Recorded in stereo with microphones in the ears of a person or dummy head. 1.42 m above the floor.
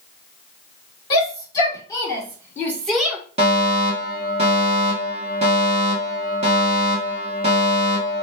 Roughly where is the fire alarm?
Right.